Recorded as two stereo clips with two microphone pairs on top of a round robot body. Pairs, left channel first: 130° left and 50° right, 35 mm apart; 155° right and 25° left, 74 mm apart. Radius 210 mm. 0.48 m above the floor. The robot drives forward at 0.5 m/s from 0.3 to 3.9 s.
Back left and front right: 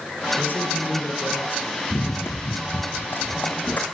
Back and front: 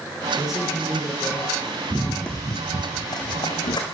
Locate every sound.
0.4 s a man speaking: 110° left, 10 m; by 1.8 s 115° left, 10 m
1.9 s running footsteps: 90° left, 0.9 m; by 3.8 s 175° left, 2.5 m